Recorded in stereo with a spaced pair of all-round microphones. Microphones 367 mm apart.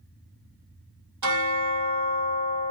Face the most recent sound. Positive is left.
turn(degrees=-55)  # may be behind; listen again after turning